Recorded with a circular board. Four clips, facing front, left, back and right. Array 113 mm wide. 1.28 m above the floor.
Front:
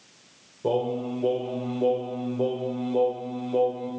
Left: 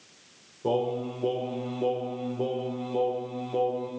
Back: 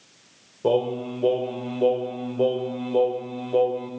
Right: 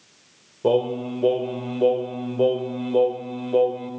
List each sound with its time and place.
0.6 s singing: 115° right, 1.9 m